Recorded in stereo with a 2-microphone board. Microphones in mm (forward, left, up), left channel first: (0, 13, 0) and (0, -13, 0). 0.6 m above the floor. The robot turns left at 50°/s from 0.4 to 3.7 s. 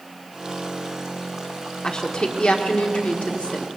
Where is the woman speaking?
145° left, 1.4 m; by 3.7 s 50° left, 1.4 m.